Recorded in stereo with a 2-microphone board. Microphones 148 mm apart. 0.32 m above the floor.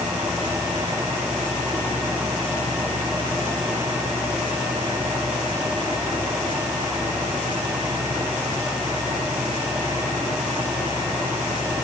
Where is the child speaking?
No child speaking in this recording.